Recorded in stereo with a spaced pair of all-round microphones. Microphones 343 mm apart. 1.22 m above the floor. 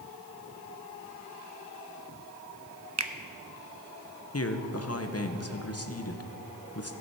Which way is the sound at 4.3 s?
40° left (ahead or behind).